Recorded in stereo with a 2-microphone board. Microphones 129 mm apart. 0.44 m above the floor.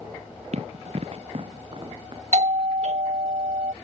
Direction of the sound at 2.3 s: 60° right (ahead or behind).